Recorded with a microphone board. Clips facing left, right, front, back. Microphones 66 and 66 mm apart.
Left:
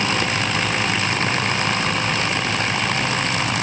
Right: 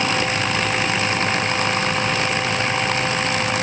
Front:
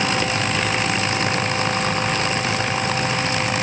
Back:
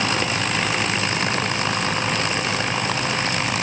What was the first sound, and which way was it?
Only background noise.